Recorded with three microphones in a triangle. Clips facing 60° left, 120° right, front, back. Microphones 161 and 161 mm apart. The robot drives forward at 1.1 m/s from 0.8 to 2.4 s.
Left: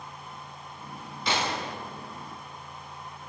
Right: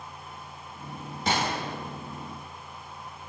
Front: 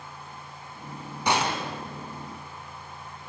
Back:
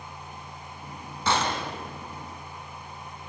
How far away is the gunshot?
About 3 m.